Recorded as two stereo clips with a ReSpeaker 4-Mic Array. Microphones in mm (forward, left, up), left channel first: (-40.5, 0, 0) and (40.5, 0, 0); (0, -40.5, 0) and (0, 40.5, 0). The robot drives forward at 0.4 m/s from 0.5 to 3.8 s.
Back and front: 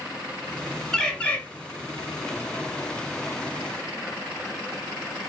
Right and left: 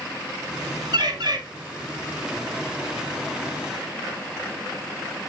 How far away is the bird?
About 1.0 m.